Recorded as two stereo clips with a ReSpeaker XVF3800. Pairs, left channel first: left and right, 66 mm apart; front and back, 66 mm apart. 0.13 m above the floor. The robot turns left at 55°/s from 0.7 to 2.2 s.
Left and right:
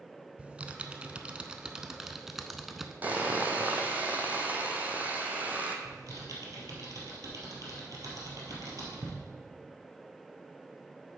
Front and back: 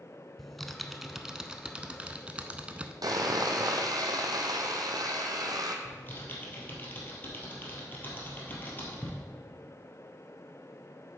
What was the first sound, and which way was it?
Typing on a keyboard, 85° right.